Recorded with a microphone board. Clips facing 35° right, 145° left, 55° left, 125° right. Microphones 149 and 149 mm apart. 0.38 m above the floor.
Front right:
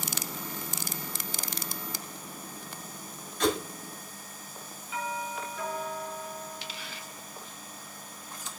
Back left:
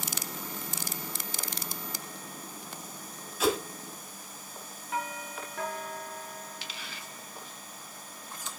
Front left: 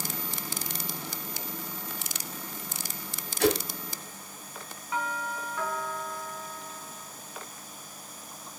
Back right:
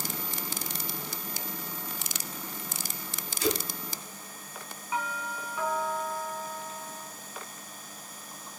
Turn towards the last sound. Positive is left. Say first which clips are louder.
# front right 1 dB, front left 1 dB
turn(degrees=160)